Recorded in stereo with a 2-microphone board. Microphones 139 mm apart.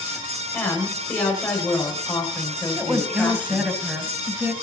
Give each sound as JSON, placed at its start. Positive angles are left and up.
{"t": 0.5, "sound": "a woman speaking", "side_deg": 10, "distance_m": 6.5}
{"t": 2.8, "sound": "a woman speaking", "side_deg": -10, "distance_m": 1.6}